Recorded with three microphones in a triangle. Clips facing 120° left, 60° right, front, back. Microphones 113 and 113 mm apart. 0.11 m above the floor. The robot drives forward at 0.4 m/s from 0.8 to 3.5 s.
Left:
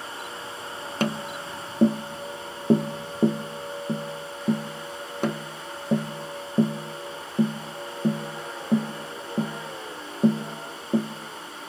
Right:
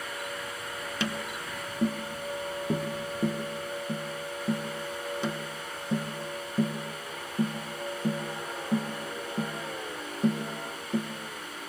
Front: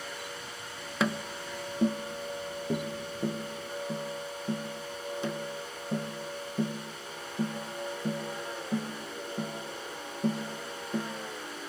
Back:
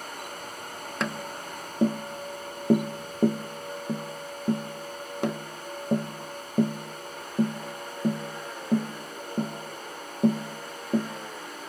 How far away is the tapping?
About 0.5 m.